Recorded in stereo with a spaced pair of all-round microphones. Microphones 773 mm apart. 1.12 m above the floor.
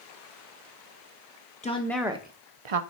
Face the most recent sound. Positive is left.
turn(degrees=-55)  # may be behind; listen again after turning